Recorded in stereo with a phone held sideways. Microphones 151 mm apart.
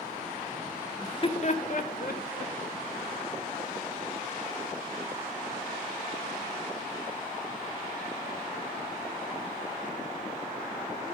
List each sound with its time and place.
1.0 s laughter: 20° left (ahead or behind), 0.9 m; by 2.5 s 80° left, 1.8 m